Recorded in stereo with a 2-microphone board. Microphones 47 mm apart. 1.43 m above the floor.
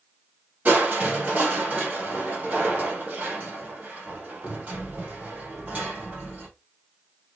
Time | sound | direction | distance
0.7 | crushing | 35° right (ahead or behind) | 2 m